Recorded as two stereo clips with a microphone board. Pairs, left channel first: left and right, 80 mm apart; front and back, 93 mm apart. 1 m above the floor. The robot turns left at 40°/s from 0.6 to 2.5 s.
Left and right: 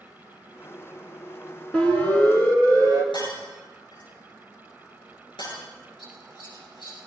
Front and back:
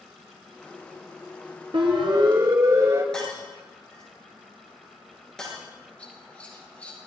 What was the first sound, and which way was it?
A siren, 170° left.